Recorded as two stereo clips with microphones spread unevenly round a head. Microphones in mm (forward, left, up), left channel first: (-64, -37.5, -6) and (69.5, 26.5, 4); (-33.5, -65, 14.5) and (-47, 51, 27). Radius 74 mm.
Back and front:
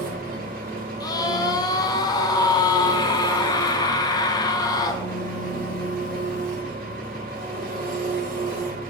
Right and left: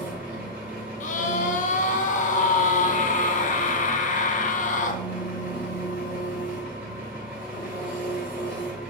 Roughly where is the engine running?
Ahead left.